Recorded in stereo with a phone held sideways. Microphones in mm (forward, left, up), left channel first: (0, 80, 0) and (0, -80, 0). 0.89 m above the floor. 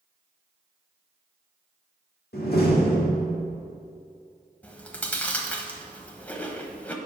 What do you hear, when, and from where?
2.3 s a door slam: 75° left (ahead or behind), 1.6 m
4.6 s chewing: 10° left (ahead or behind), 0.9 m